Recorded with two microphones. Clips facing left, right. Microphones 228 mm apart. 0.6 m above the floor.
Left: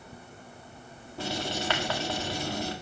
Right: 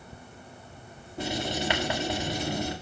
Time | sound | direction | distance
1.2 | writing | 20° right (ahead or behind) | 1.4 m